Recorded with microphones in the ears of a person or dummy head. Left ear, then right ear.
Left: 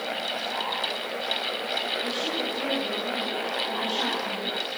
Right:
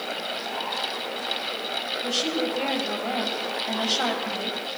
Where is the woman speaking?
55° right (ahead or behind), 6.5 m.